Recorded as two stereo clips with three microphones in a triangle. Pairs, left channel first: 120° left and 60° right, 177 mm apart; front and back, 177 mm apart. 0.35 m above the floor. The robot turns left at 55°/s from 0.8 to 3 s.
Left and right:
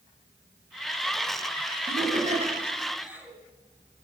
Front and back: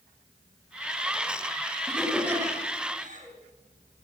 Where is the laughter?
80° right, 3 m; by 3.4 s 145° right, 3 m.